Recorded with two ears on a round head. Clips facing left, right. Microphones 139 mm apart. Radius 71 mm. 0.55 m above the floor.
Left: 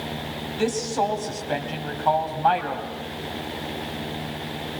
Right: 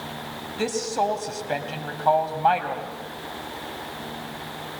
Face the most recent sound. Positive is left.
turn(degrees=-5)  # may be behind; listen again after turning